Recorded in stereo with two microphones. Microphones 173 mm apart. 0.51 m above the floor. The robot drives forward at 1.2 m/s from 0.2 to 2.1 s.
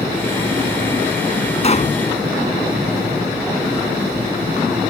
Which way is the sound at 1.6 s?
40° left (ahead or behind).